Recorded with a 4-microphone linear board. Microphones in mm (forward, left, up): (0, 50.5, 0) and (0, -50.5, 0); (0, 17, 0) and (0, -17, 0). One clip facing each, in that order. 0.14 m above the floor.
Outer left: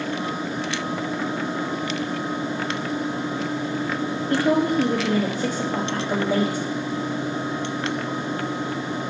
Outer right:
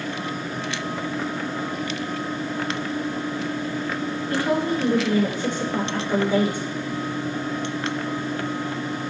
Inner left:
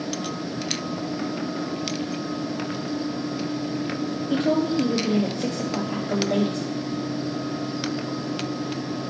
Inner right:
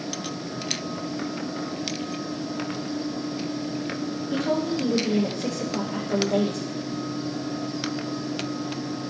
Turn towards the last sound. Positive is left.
turn(degrees=40)  # may be behind; listen again after turning